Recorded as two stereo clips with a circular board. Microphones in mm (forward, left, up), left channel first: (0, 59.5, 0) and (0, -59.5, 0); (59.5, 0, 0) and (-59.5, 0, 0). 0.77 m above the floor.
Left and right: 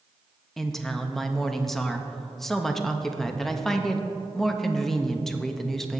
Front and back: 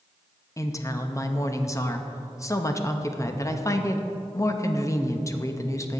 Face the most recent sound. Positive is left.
turn(degrees=10)